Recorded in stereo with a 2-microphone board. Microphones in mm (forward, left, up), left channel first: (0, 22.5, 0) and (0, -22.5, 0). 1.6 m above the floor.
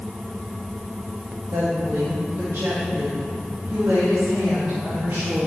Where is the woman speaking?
80° right, 2 m; by 5.5 s 65° right (ahead or behind), 4 m.